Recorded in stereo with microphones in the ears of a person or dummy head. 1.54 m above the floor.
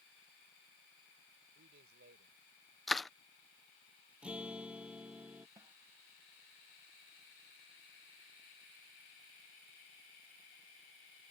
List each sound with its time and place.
1.6 s a man speaking: 50° right (ahead or behind); by 2.8 s 55° right (ahead or behind)
2.9 s crushing: 5° right (ahead or behind)
4.2 s a guitar: centre (ahead or behind)
5.6 s a snare drum: 25° right (ahead or behind)